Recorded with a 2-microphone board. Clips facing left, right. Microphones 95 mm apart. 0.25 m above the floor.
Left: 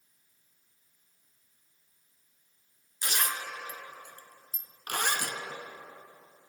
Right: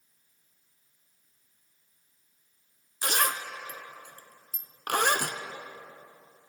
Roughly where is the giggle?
No giggle in this recording.